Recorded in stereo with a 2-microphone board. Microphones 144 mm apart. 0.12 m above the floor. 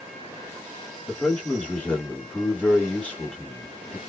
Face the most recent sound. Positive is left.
turn(degrees=10)  # may be behind; listen again after turning